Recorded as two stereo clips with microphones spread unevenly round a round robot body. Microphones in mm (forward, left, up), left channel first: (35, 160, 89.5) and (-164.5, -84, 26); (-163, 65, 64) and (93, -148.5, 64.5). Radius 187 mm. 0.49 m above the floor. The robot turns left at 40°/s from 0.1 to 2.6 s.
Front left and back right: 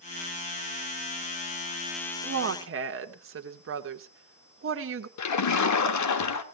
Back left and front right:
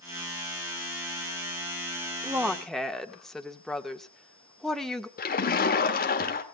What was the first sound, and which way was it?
A woman speaking, 115° right.